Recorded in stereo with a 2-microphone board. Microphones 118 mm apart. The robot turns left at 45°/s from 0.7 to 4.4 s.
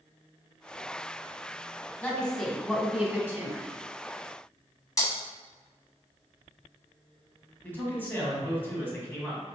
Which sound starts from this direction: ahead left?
A woman speaking, at 2.0 s.